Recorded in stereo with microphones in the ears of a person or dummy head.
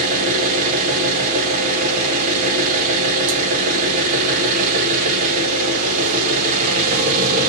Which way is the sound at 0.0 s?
45° right (ahead or behind).